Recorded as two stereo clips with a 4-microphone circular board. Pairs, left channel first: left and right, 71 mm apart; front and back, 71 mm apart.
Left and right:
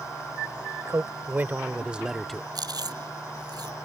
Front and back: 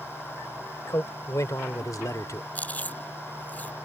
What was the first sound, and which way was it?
A man speaking, 40° right.